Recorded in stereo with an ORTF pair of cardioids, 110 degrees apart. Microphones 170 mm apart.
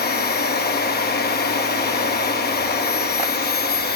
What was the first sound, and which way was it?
A machine running, 70° left.